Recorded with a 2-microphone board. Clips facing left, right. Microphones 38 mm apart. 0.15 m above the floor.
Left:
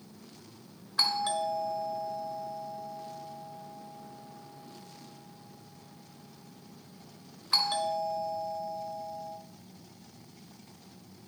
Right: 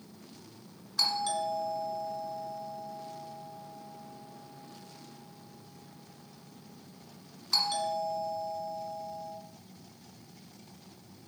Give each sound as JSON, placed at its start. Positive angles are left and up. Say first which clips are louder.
{"t": 1.0, "sound": "a doorbell", "louder": "left 1 dB", "side_deg": 20, "distance_m": 1.6}